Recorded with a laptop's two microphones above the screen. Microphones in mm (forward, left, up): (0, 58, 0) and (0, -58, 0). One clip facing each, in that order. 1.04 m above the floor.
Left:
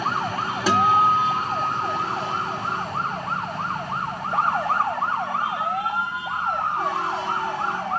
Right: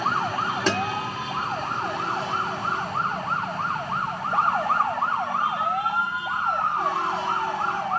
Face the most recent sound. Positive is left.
turn(degrees=5)  # may be behind; listen again after turning